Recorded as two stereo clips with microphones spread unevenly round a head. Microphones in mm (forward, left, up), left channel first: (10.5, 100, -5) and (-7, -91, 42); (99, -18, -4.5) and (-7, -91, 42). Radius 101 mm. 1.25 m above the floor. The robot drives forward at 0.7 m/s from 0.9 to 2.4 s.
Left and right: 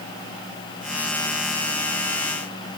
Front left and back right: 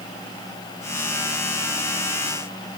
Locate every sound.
Only background noise.